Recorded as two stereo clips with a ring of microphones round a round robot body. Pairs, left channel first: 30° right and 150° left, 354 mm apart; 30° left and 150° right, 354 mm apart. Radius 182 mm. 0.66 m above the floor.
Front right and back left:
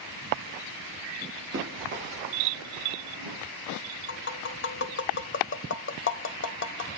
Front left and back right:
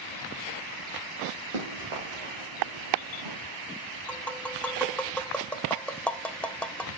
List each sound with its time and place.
1.5 s running footsteps: 150° right, 5.5 m; by 3.4 s 170° right, 3.5 m
4.1 s tapping: 55° right, 0.7 m